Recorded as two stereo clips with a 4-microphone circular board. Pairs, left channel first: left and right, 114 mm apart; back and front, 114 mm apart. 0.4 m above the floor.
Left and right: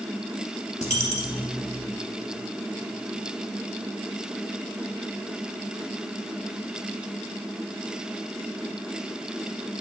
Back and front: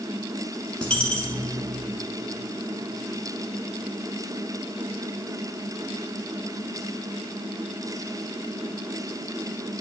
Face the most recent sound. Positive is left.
turn(degrees=100)